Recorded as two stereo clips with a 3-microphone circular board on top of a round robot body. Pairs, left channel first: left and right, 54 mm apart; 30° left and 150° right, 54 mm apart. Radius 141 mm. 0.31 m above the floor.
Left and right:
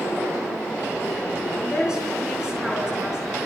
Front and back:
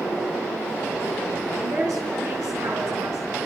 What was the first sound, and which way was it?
A woman speaking, 170° right.